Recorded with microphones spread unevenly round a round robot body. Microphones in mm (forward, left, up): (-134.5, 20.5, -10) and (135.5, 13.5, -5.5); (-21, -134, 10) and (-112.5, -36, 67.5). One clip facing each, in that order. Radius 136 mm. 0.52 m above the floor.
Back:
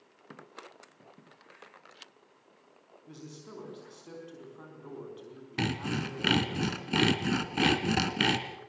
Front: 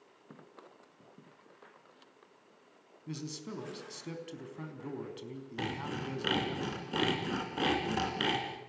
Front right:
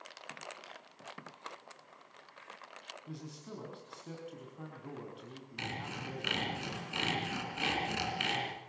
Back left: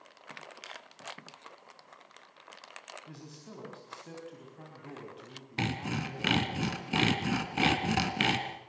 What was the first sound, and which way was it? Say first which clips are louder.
A man speaking: front 5 dB, front right 7 dB; 40° left.